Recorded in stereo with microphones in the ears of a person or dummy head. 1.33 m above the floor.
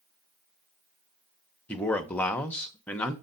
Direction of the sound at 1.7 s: 10° left (ahead or behind).